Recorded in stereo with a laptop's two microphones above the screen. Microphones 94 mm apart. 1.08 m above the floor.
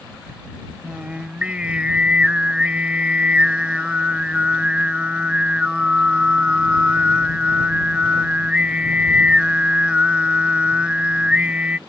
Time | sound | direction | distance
0.8 | singing | 15° right (ahead or behind) | ?